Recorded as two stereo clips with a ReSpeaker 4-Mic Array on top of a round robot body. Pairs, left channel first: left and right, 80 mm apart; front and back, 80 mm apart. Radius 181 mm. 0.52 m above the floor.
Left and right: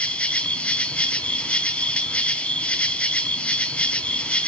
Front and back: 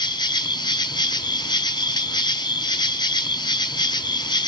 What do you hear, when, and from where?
0.0 s an insect: 15° left, 1.0 m